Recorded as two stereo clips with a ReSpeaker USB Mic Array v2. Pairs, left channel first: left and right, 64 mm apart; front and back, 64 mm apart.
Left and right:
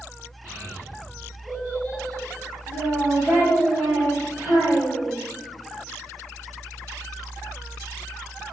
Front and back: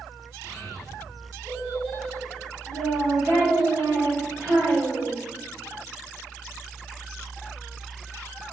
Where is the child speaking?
140° right, 1.9 m; by 5.2 s 160° right, 4.5 m.